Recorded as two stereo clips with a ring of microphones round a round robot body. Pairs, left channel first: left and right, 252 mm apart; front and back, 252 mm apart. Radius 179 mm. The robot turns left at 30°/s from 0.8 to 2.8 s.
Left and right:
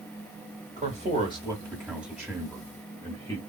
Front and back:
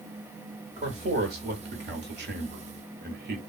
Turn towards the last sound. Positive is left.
turn(degrees=160)